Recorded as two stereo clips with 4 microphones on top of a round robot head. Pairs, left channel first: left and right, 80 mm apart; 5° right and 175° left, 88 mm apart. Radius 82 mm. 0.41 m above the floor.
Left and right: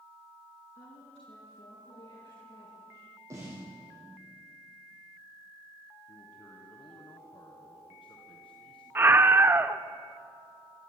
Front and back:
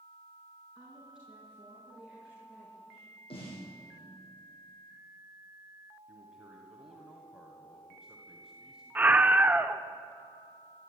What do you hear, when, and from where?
0.8 s a woman speaking: 95° left, 5 m; by 3.1 s 85° left, 8 m
3.3 s a snare drum: 30° right, 7.5 m
6.1 s a man speaking: 90° left, 2.5 m
8.9 s a scream: 130° right, 0.9 m